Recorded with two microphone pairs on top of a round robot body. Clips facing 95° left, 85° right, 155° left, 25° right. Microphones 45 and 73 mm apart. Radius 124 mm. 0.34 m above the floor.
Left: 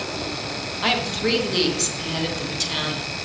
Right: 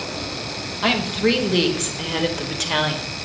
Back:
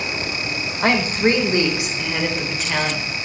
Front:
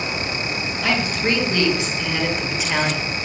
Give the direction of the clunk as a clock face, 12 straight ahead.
No clunk in this recording.